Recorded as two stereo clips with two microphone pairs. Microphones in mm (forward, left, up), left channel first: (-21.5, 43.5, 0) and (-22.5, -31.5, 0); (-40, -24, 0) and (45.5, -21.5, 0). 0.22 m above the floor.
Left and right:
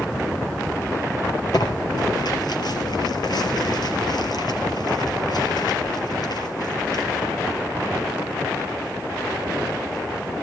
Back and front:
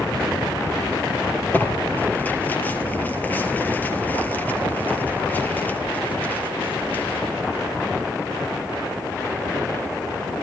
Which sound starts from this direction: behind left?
Tearing paper, at 1.5 s.